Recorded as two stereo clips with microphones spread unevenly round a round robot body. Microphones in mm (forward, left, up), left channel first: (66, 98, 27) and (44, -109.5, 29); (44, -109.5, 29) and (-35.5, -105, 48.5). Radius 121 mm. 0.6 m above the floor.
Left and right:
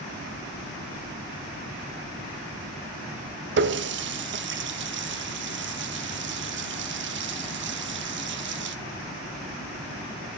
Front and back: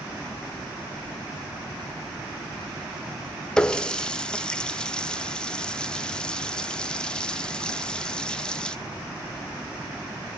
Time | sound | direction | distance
3.6 | a running tap | 75° right | 0.9 m